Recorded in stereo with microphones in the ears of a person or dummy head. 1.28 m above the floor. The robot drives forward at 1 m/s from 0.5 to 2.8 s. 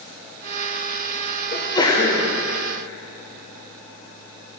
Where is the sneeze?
30° left (ahead or behind), 0.9 m; by 2.3 s 20° left (ahead or behind), 1.6 m.